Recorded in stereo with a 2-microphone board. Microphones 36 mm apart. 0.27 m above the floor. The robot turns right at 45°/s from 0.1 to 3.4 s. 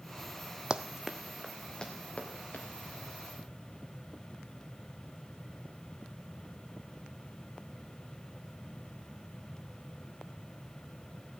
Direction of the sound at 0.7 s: 25° right (ahead or behind).